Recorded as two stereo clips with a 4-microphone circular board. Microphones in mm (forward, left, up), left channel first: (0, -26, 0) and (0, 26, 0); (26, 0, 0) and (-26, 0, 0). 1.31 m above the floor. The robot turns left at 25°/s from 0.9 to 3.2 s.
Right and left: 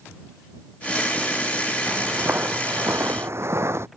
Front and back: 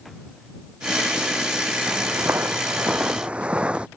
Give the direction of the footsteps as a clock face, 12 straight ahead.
7 o'clock.